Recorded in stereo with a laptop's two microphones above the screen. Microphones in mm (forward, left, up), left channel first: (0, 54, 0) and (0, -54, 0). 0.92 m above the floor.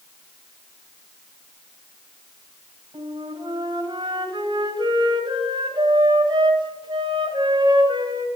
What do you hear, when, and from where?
2.9 s a flute: 45° right (ahead or behind), 2 m